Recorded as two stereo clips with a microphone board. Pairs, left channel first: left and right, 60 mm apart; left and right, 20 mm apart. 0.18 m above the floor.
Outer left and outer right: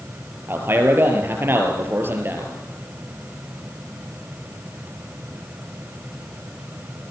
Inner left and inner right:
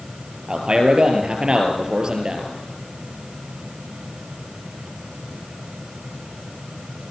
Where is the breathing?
No breathing in this recording.